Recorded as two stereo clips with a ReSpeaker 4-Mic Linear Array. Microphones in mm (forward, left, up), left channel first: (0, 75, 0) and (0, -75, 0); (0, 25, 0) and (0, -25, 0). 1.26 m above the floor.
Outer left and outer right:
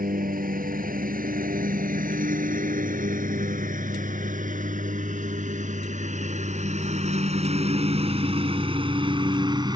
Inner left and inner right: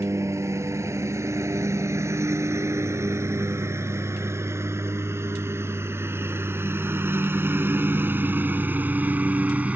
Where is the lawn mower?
80° right; by 9.8 s 30° right (ahead or behind).